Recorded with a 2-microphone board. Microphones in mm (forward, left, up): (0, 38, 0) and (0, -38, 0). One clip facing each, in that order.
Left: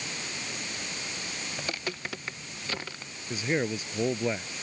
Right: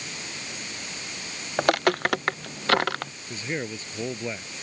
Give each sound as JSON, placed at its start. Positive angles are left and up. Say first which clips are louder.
{"t": 1.6, "sound": "footsteps", "louder": "right 16 dB", "side_deg": -65}
{"t": 3.3, "sound": "a man speaking", "louder": "left 4 dB", "side_deg": 15}